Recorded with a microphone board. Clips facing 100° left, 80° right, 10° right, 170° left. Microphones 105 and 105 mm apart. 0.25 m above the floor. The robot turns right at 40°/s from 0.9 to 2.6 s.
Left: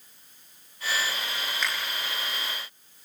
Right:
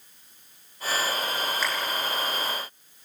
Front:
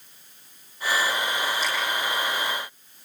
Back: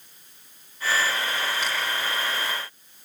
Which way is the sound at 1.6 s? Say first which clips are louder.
Left 1 dB, front 1 dB; 165° right.